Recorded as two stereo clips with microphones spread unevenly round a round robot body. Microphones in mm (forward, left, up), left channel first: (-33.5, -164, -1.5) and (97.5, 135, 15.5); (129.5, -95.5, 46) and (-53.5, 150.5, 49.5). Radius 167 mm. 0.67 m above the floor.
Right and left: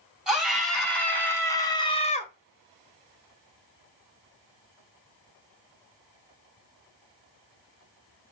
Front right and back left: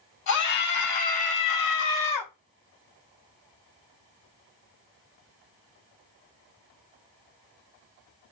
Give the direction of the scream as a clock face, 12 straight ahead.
1 o'clock.